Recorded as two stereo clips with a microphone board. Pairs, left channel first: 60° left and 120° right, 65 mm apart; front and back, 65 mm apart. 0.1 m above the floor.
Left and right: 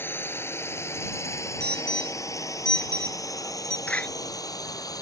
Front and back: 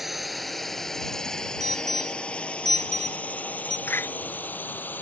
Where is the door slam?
5° left.